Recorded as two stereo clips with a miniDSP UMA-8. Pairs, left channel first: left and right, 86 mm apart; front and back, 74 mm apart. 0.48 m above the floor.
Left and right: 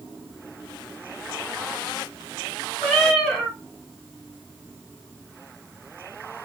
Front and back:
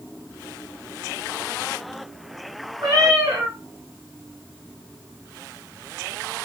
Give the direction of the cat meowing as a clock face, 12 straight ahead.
6 o'clock.